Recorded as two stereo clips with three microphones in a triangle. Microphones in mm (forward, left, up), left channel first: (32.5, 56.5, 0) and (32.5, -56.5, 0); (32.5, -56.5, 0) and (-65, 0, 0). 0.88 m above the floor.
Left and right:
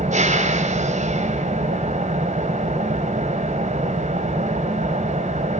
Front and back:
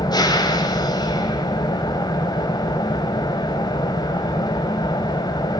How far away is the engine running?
About 4 m.